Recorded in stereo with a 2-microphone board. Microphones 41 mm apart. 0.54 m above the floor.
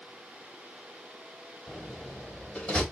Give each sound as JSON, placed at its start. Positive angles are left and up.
{"t": 1.7, "sound": "a door slam", "side_deg": 20, "distance_m": 2.0}